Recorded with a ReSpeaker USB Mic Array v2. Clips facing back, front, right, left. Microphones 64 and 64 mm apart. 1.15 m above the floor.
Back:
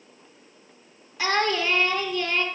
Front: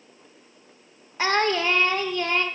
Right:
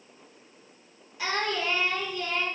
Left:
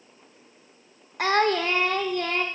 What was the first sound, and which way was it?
Singing, 55° left.